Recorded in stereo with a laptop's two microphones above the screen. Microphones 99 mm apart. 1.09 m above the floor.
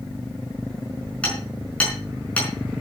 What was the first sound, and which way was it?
Hammering, 15° left (ahead or behind).